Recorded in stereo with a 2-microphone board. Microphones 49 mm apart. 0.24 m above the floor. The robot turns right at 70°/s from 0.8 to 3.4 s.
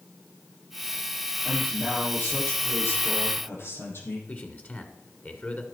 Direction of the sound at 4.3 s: 35° left (ahead or behind).